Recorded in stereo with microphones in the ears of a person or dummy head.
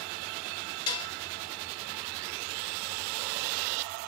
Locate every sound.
0.9 s dishes clattering: 25° left (ahead or behind), 0.8 m